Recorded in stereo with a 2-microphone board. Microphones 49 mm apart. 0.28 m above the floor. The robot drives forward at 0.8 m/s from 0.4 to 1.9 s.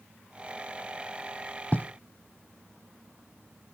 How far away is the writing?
About 0.8 m.